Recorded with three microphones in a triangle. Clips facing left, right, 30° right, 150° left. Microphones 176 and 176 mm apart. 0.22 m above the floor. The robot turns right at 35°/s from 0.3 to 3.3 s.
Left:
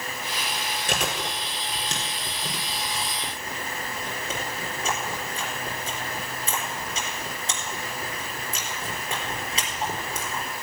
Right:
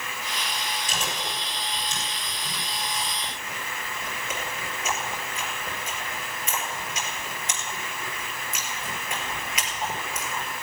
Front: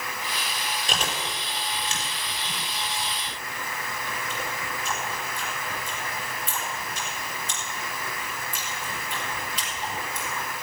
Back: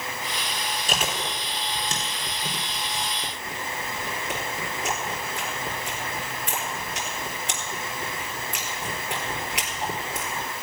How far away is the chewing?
About 3.5 m.